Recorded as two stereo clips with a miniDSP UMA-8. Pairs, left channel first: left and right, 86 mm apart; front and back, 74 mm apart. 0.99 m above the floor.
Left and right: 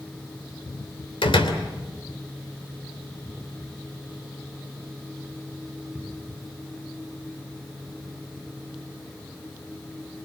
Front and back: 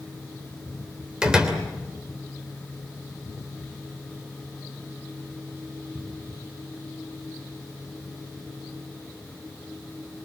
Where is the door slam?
100° left, 3 m.